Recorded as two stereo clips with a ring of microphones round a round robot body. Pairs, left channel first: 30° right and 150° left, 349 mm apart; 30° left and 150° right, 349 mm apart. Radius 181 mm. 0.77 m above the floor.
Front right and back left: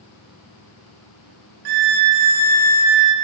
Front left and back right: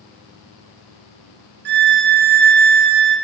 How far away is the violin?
About 0.8 m.